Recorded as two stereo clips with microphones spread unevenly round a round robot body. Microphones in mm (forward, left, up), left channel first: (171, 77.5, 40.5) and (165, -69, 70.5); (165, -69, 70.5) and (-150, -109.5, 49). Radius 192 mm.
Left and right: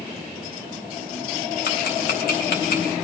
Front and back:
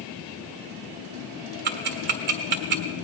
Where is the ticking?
125° left, 0.9 m.